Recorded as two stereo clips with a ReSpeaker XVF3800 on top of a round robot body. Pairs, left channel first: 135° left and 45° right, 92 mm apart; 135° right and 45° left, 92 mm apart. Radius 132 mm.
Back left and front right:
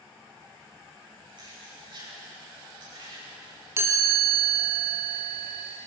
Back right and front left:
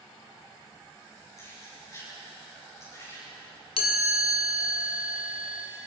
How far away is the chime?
About 1.7 m.